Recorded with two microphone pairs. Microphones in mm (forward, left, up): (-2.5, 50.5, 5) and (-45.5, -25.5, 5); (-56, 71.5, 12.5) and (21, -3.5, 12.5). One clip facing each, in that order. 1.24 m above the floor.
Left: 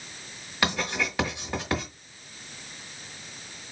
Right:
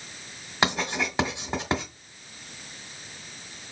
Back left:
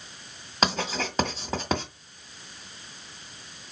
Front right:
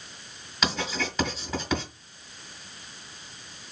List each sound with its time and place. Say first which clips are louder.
0.6 s writing: right 2 dB, back left 2 dB; straight behind, 1.7 m